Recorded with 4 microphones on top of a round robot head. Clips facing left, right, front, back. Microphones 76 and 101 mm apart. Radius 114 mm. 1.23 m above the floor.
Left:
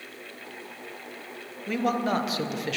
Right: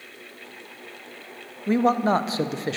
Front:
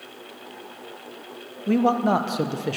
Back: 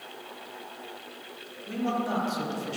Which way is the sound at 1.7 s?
30° right.